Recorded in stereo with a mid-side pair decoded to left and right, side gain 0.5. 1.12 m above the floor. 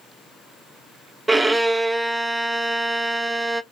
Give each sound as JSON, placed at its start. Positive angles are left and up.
{"t": 1.3, "sound": "a violin", "azimuth_deg": -20, "distance_m": 0.6}